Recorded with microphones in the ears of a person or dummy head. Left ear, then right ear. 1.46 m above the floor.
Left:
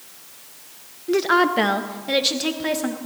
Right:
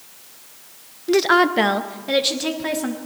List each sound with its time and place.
1.1 s a woman speaking: 30° right (ahead or behind), 0.6 m; by 3.0 s 5° right (ahead or behind), 1.7 m